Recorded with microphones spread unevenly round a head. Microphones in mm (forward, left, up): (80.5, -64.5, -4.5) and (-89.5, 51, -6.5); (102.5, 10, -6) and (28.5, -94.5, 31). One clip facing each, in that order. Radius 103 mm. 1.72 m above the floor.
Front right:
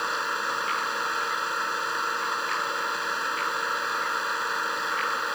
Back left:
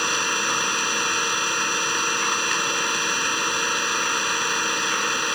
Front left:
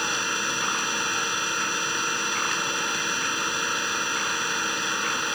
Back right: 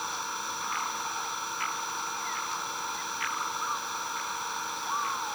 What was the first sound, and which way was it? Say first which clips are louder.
An engine running: back left 5 dB, front left 6 dB; 100° left.